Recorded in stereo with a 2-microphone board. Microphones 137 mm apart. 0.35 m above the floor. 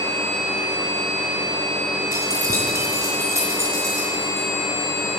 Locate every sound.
2.1 s keys jangling: 25° right (ahead or behind), 2 m; by 4.5 s 20° right (ahead or behind), 5.5 m